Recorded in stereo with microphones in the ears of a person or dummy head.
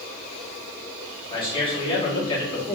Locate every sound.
1.3 s a man speaking: 25° left (ahead or behind), 1.3 m